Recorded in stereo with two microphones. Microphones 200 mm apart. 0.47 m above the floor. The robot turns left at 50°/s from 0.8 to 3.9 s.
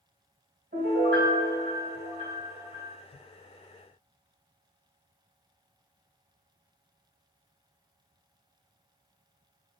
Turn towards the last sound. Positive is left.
turn(degrees=130)